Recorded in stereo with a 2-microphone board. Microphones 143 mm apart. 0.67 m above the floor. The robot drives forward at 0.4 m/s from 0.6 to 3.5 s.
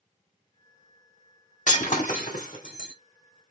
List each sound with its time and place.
1.7 s breaking glass: 65° left (ahead or behind), 1.6 m